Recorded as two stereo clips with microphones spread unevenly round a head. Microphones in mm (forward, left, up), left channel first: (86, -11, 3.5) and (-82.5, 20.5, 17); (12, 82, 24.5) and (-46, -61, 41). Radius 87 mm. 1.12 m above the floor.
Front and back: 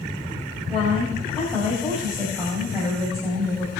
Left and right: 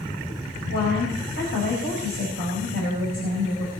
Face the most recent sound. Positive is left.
turn(degrees=80)